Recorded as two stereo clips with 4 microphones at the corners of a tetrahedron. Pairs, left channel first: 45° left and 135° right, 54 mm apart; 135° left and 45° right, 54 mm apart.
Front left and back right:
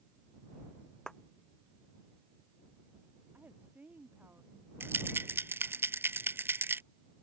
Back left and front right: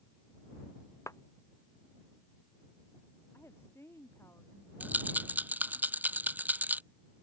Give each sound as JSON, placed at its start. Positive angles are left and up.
{"t": 1.1, "sound": "a clap", "azimuth_deg": 125}
{"t": 3.3, "sound": "a woman speaking", "azimuth_deg": 170}
{"t": 4.8, "sound": "a rattle", "azimuth_deg": -100}